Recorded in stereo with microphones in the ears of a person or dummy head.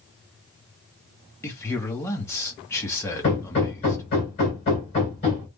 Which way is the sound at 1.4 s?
15° left (ahead or behind).